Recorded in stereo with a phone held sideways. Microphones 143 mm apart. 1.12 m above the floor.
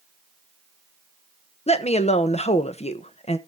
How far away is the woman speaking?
About 1.1 m.